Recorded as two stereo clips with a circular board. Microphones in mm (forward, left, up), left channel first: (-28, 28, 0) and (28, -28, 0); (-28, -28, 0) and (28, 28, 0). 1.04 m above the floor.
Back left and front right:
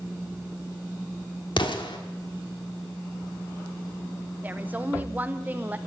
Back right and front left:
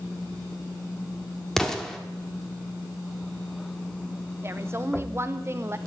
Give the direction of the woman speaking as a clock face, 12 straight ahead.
12 o'clock.